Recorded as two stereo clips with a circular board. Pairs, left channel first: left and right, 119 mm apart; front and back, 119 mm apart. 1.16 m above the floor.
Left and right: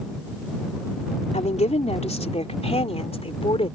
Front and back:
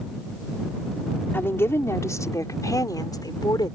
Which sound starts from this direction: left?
A woman speaking, at 1.3 s.